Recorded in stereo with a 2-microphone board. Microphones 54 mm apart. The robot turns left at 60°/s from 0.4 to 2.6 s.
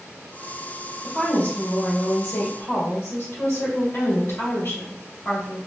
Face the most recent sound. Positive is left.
turn(degrees=70)